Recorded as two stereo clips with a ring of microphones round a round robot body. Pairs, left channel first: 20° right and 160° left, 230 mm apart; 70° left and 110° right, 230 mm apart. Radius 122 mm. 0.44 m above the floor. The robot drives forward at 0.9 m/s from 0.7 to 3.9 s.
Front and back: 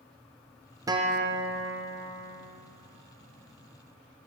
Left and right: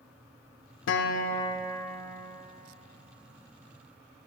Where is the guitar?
85° left, 0.6 m; by 2.4 s 160° left, 1.4 m.